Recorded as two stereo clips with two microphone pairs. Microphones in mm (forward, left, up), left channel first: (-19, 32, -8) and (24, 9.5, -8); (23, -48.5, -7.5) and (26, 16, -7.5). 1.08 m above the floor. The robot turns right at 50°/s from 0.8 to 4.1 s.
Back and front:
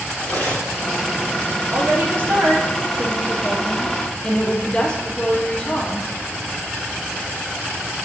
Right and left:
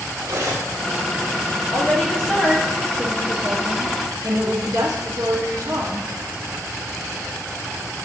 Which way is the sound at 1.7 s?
45° right.